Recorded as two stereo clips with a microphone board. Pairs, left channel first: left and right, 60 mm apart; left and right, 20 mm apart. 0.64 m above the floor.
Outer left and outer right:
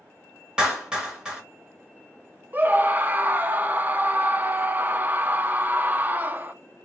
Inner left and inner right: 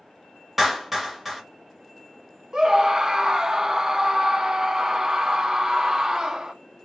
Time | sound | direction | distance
0.6 | a clap | 15° right (ahead or behind) | 2 m
2.5 | a scream | 30° right (ahead or behind) | 0.6 m